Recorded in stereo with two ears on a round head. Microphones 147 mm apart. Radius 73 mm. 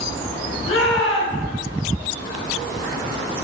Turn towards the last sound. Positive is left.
turn(degrees=35)  # may be behind; listen again after turning